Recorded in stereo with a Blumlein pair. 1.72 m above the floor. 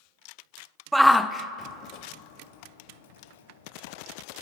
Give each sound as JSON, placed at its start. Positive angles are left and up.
{"t": 0.9, "sound": "a shout", "azimuth_deg": -10, "distance_m": 0.6}